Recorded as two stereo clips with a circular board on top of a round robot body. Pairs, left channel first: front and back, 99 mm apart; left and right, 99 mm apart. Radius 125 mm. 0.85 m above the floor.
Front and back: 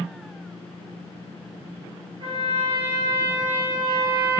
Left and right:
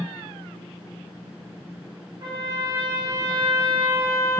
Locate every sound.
2.2 s a trumpet: 150° right, 0.8 m